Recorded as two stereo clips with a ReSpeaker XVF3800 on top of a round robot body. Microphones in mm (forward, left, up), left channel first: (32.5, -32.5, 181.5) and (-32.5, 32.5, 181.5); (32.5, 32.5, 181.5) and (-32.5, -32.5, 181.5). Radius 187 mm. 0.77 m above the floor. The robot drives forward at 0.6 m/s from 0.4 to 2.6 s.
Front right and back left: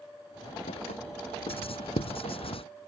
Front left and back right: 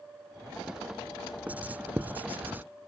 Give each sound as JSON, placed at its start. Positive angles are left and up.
{"t": 1.5, "sound": "writing", "azimuth_deg": -60}